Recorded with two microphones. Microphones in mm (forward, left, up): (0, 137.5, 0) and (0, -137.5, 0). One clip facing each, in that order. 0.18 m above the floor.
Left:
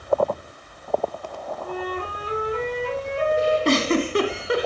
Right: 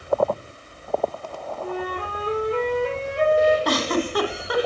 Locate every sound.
1.6 s a flute: 60° right (ahead or behind), 5 m
3.6 s a giggle: 30° left (ahead or behind), 1.8 m